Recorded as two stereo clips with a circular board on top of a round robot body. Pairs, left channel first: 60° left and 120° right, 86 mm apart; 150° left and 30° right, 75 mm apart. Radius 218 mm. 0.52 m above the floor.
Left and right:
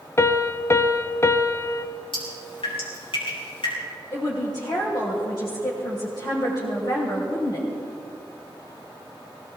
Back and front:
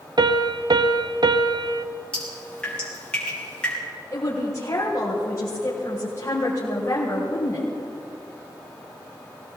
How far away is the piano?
About 0.6 m.